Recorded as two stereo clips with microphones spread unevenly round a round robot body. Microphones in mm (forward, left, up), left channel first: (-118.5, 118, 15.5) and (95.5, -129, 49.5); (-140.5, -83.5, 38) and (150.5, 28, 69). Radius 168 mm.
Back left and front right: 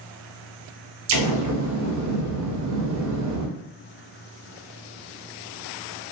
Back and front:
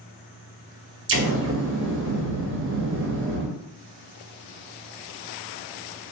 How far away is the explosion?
About 0.5 m.